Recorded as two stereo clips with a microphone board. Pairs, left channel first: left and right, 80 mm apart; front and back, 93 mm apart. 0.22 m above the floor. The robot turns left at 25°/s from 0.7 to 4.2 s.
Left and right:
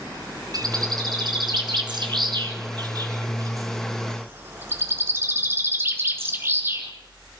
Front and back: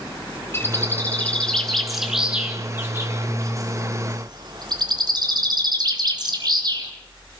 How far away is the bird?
About 3.5 m.